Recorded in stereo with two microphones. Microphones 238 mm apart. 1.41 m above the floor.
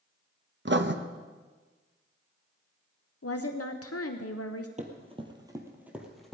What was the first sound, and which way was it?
Writing, 50° right (ahead or behind).